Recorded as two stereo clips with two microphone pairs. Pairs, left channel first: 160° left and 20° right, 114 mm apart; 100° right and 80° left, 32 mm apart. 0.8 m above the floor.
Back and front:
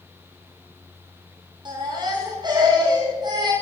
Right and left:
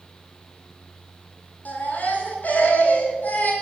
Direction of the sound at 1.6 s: 65° right.